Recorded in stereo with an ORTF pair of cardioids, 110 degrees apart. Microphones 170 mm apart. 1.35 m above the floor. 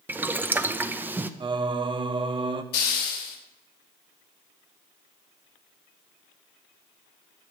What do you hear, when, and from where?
0.1 s boiling: 10° right, 0.7 m
1.4 s singing: 30° right, 0.8 m
2.7 s a hiss: 70° left, 2.5 m